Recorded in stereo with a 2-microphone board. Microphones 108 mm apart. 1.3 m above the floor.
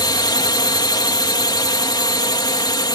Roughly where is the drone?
Left.